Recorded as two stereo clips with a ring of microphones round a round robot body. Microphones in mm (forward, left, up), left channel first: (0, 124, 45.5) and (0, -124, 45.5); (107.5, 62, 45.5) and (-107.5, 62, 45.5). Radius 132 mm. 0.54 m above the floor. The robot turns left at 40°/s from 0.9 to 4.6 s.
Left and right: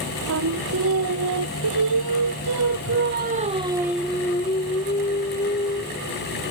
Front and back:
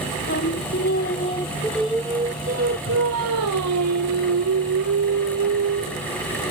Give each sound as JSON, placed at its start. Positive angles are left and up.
{"t": 0.3, "sound": "singing", "azimuth_deg": -55}